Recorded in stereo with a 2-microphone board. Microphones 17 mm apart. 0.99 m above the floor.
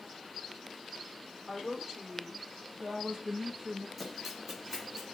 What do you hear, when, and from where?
1.5 s a woman speaking: 20° right (ahead or behind), 3 m; by 3.9 s 70° right (ahead or behind), 1.1 m
4.0 s running footsteps: centre (ahead or behind), 2.5 m; by 5.2 s 20° right (ahead or behind), 3 m